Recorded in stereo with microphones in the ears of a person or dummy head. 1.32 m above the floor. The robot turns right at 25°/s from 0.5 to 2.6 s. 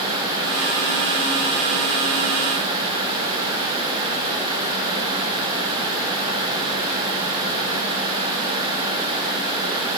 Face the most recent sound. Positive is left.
No sound to turn to.